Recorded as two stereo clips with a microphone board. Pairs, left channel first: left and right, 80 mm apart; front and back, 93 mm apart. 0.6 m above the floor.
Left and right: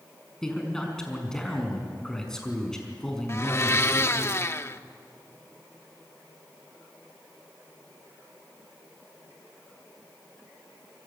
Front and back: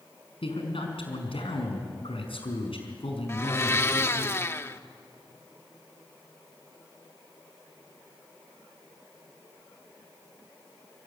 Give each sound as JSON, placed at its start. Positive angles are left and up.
{"t": 0.4, "sound": "a man speaking", "azimuth_deg": 10, "distance_m": 5.5}
{"t": 3.3, "sound": "a blender", "azimuth_deg": 50, "distance_m": 0.7}